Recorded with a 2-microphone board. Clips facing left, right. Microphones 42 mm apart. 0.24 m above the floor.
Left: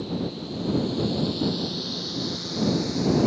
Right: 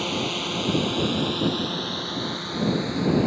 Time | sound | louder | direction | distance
0.0 | a drone | right 4 dB | 80° right | ?